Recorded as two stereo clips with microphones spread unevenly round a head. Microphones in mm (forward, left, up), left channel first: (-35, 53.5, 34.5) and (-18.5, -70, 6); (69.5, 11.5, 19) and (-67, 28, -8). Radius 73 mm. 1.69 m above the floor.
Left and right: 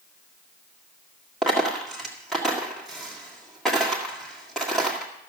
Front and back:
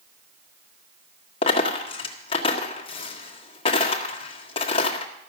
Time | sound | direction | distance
1.4 | a dropped coin | 20° left | 1.6 m